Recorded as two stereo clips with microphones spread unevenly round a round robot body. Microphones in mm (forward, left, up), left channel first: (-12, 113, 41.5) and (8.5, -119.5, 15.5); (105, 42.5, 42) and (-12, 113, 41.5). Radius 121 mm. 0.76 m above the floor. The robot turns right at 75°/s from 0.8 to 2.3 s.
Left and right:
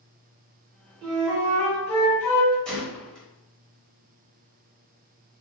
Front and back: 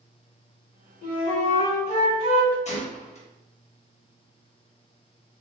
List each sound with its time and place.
1.0 s a flute: 50° right, 1.3 m; by 2.5 s 45° left, 1.3 m
2.6 s a gunshot: 5° left, 0.9 m